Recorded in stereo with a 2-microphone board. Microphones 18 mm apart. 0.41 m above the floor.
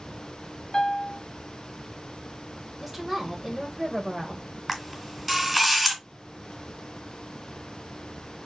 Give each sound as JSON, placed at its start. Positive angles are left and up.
{"t": 0.7, "sound": "a piano", "side_deg": 60, "distance_m": 0.7}
{"t": 2.8, "sound": "a woman speaking", "side_deg": -15, "distance_m": 1.8}
{"t": 4.7, "sound": "a camera shutter", "side_deg": 0, "distance_m": 2.5}